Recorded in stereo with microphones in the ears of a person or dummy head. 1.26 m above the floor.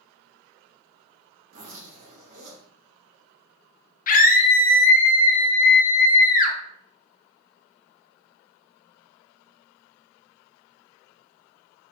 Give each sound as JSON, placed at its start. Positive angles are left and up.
{"t": 1.5, "sound": "a zipper", "side_deg": -55, "distance_m": 1.6}
{"t": 4.1, "sound": "a scream", "side_deg": 50, "distance_m": 0.7}